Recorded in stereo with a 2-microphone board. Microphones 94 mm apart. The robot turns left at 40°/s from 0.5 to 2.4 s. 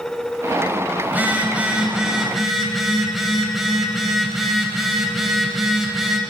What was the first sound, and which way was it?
A phone buzzing, 20° right (ahead or behind).